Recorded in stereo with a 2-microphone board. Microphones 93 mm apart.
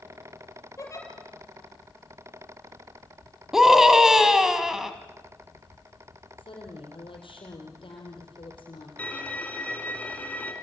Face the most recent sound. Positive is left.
turn(degrees=15)  # may be behind; listen again after turning